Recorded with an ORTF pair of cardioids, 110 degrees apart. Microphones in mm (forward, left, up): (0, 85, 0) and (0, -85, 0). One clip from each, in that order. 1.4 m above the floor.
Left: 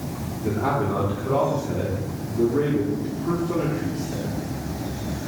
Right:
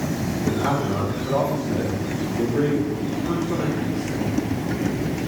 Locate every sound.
0.4 s a man speaking: 20° left, 1.9 m